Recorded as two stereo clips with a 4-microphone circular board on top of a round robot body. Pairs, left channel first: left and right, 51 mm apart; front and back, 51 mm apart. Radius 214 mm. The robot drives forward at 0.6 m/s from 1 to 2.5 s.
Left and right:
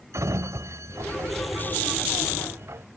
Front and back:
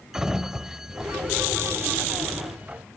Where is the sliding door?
100° right; by 2.9 s 115° right.